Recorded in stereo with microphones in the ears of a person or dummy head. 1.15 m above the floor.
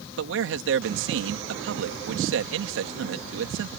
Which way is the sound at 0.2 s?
70° right (ahead or behind).